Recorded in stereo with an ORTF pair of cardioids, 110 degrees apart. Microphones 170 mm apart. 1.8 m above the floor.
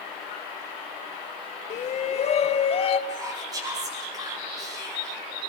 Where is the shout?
45° left, 1.0 m; by 3.0 s 35° left, 1.8 m.